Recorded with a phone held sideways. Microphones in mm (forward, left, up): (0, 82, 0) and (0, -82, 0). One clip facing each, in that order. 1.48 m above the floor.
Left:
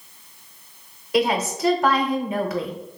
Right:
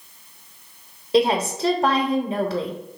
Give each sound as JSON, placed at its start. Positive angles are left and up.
{"t": 1.1, "sound": "a woman speaking", "side_deg": -30, "distance_m": 0.6}